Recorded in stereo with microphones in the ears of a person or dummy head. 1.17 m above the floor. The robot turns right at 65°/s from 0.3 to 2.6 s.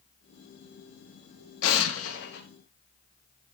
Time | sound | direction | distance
1.6 | an explosion | 75° left | 1.9 m